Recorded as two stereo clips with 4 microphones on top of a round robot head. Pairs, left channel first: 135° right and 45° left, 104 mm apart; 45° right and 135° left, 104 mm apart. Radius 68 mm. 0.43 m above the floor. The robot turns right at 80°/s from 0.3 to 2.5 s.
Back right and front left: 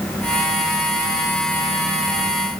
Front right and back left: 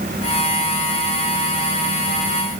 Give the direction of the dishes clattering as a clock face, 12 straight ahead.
No dishes clattering in this recording.